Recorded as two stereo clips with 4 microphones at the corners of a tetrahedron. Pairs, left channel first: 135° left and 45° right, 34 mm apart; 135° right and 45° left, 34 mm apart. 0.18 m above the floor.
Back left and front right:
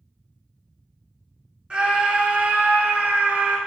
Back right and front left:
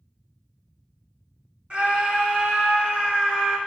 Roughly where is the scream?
Ahead.